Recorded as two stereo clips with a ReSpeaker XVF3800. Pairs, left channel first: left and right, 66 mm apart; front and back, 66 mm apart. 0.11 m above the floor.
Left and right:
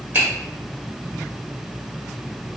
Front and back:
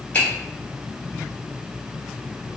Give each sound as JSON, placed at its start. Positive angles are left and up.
{"t": 0.1, "sound": "a finger snap", "azimuth_deg": -55, "distance_m": 1.8}